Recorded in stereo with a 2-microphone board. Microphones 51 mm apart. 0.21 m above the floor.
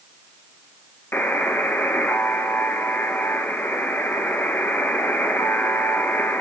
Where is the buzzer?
40° left (ahead or behind), 0.6 m.